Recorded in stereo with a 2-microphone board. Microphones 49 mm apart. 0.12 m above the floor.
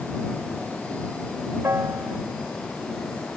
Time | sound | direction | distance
1.6 | a piano | 80° right | ?